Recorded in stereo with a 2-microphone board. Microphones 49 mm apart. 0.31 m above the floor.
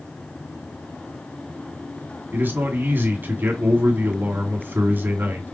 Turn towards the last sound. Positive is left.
turn(degrees=-40)  # may be behind; listen again after turning